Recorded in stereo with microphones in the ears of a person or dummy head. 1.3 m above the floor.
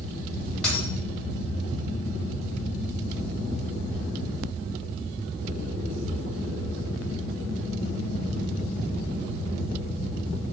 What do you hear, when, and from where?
0.6 s a dropped coin: 5° left (ahead or behind), 1.6 m